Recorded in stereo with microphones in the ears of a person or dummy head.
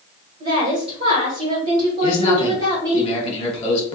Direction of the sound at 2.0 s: 35° left (ahead or behind).